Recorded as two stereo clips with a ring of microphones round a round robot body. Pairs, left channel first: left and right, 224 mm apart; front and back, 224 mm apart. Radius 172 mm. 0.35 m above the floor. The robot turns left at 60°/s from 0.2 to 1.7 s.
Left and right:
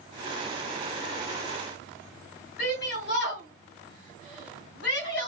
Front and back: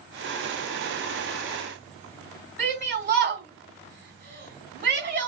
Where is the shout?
135° left, 3 m.